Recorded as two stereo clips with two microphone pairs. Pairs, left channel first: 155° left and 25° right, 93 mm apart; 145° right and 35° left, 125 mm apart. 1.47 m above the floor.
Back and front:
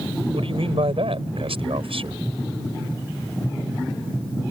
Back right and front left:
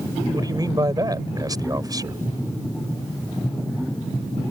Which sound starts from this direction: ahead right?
A man speaking, at 0.3 s.